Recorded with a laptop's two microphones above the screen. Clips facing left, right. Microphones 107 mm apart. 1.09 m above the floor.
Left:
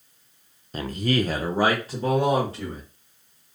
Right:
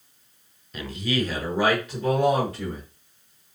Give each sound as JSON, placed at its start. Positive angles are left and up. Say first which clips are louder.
{"t": 0.7, "sound": "a man speaking", "louder": "left 3 dB", "side_deg": 40, "distance_m": 0.6}